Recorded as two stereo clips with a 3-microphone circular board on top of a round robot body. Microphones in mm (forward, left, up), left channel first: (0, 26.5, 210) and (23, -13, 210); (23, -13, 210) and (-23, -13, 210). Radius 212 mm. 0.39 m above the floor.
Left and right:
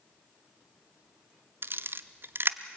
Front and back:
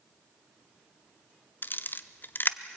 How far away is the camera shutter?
About 0.9 m.